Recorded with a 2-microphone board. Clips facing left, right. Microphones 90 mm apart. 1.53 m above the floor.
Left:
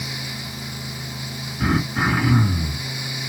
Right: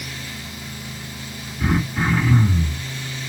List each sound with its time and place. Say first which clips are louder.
1.6 s throat clearing: left 1 dB; 45° left (ahead or behind), 2 m